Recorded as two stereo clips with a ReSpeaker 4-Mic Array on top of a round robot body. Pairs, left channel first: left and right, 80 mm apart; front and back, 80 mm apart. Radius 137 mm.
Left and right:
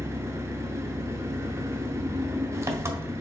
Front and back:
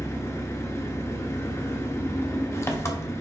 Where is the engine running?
45° right, 0.9 m.